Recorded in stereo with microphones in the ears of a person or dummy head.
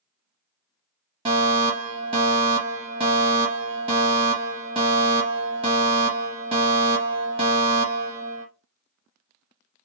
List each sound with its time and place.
1.2 s a fire alarm: 25° right (ahead or behind), 0.8 m